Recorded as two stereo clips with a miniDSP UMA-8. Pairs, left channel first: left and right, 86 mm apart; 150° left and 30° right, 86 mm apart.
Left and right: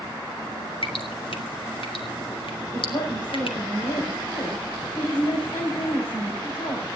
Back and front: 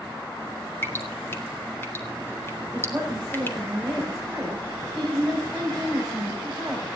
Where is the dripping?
85° left, 3 m.